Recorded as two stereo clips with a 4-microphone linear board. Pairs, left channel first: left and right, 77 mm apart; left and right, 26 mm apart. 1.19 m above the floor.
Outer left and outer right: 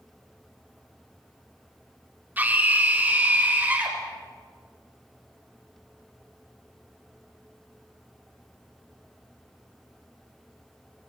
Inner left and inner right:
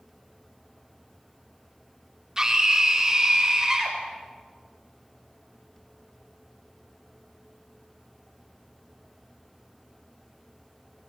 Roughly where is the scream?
Right.